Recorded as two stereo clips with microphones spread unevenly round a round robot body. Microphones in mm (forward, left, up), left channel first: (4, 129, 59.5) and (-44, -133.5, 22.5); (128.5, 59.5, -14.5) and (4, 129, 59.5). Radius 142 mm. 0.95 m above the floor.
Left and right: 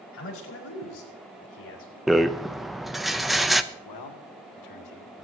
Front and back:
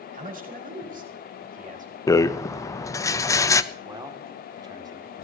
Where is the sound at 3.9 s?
85° left, 2.5 m.